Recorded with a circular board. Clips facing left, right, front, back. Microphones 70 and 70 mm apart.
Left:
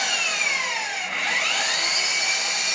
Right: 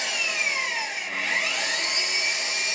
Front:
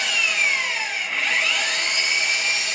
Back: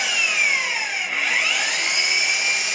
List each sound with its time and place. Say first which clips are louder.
0.0 s an engine running: left 2 dB, even; 95° left, 1.3 m